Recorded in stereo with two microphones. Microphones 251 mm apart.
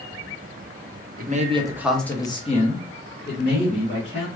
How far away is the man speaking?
About 0.6 m.